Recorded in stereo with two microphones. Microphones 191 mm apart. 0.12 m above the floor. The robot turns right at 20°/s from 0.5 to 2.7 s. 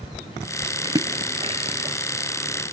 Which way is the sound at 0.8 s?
20° right (ahead or behind).